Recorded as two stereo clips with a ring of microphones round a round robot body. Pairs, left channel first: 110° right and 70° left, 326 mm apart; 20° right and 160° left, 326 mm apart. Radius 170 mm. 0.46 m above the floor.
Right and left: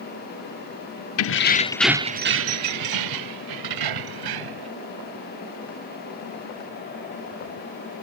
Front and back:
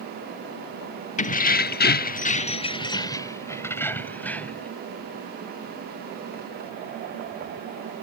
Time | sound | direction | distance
1.2 | keys jangling | 85° right | ?